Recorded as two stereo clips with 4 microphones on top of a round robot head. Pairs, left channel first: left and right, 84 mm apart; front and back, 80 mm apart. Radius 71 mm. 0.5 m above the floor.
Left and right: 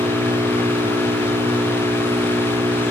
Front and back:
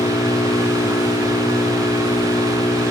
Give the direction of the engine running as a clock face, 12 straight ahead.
1 o'clock.